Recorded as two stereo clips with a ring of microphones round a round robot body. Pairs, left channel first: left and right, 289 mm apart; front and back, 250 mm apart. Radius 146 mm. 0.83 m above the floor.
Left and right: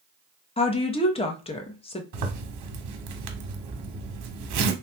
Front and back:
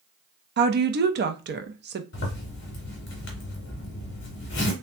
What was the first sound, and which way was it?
A woman speaking, 155° left.